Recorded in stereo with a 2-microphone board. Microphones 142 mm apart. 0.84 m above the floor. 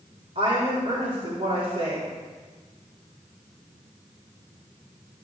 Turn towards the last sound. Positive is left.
turn(degrees=-55)  # may be behind; listen again after turning